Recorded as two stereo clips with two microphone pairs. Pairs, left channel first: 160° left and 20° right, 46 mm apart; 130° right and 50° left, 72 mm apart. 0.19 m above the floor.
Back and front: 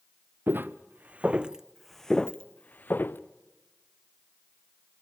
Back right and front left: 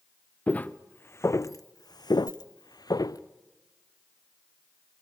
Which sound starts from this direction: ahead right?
Footsteps, at 0.5 s.